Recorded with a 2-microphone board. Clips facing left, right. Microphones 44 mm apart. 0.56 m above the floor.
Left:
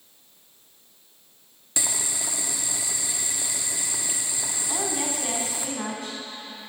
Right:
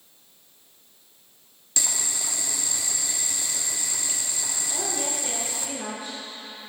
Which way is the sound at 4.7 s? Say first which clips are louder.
Left 2 dB; 75° left (ahead or behind).